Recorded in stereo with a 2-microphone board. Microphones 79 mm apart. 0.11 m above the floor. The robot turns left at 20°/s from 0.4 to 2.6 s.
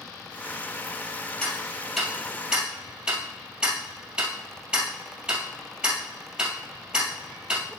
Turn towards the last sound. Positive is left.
turn(degrees=-10)  # may be behind; listen again after turning